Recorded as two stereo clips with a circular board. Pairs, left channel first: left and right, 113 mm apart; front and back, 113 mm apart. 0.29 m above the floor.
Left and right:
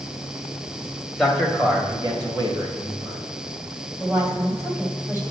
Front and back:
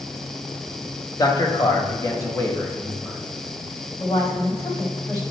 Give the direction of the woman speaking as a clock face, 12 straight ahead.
1 o'clock.